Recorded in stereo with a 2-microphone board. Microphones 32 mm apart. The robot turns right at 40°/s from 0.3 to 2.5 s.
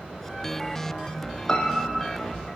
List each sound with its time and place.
1.5 s a piano: 25° left (ahead or behind), 0.7 m; by 2.0 s centre (ahead or behind), 0.7 m